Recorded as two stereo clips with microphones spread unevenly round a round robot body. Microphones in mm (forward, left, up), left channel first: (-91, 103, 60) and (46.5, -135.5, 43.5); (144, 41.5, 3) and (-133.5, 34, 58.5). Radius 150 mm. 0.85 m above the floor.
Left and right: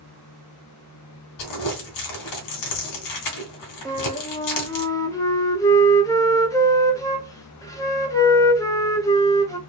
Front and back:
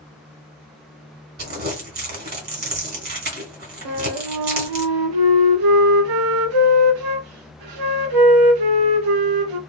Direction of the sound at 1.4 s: 130° left.